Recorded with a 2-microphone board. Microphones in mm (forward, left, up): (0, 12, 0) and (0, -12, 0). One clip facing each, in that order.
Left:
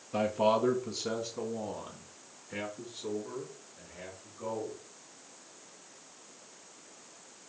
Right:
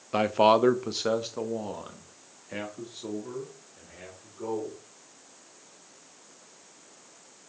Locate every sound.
0.1 s a man speaking: 45° right (ahead or behind), 0.6 m; by 4.8 s 50° right (ahead or behind), 3.5 m